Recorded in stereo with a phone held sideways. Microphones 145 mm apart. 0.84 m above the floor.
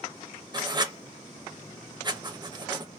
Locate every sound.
0.5 s writing: 30° right (ahead or behind), 0.6 m